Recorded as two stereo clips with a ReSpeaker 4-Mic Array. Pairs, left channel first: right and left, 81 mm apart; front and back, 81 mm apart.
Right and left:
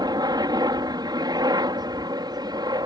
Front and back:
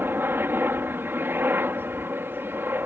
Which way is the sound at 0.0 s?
120° left.